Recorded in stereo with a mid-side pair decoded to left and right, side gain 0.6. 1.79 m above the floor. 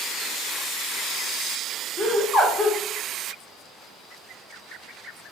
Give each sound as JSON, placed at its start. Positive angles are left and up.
{"t": 2.0, "sound": "laughter", "azimuth_deg": 25, "distance_m": 0.9}